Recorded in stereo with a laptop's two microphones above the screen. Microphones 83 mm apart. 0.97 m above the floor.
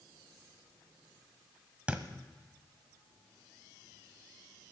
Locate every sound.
1.9 s a thud: 15° right (ahead or behind), 1.4 m